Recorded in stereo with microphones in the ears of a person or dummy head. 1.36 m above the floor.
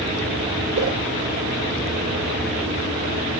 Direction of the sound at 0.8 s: 75° right (ahead or behind).